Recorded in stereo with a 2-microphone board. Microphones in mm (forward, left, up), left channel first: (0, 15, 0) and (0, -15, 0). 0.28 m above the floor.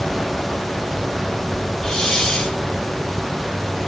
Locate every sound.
1.8 s a hiss: 15° left (ahead or behind), 2.5 m